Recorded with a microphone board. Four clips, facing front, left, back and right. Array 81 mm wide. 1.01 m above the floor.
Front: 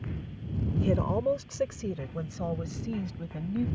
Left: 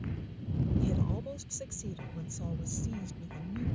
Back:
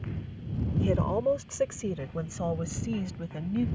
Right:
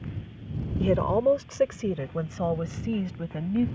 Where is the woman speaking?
90° right; by 3.7 s 100° right.